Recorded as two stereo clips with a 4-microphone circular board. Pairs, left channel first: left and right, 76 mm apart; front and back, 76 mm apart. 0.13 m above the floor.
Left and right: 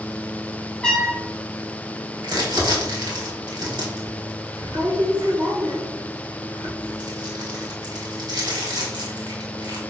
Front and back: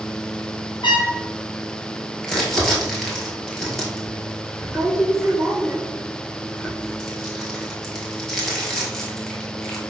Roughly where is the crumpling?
Right.